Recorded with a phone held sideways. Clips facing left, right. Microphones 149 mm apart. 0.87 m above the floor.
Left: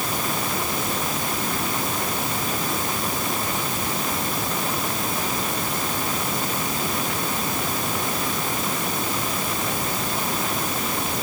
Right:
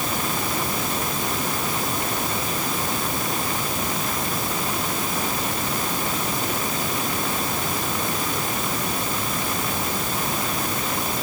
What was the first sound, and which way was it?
Only background noise.